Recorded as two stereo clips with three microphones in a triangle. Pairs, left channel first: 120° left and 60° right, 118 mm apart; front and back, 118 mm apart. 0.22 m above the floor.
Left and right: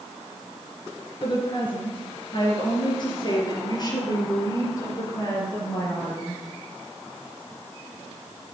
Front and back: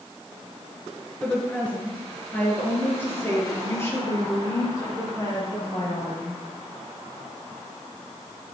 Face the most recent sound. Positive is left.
turn(degrees=60)